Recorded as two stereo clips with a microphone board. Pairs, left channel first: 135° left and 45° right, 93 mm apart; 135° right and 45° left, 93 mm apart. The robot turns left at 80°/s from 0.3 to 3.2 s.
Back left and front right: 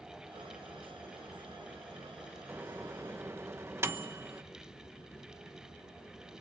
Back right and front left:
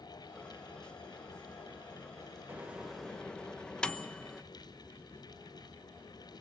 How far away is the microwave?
About 0.9 m.